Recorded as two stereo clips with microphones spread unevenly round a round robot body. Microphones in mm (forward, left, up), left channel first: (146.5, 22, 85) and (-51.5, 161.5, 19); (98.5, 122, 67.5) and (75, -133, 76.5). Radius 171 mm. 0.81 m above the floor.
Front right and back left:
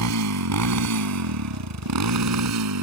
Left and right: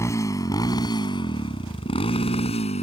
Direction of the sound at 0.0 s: 165° left.